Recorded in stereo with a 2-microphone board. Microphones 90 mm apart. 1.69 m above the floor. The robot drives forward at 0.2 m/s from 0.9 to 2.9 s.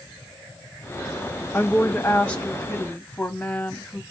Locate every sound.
1.5 s a woman speaking: 20° left (ahead or behind), 1.3 m; by 4.0 s 15° left (ahead or behind), 1.6 m